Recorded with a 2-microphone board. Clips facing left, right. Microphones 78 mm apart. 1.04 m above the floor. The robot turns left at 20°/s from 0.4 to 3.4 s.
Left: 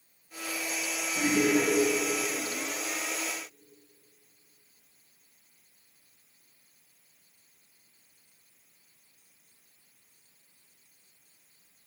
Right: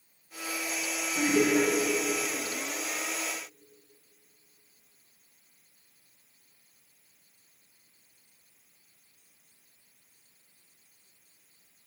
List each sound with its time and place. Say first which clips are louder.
1.1 s laughter: right 1 dB; 60° right (ahead or behind), 3.5 m; by 1.7 s 70° right (ahead or behind), 3.5 m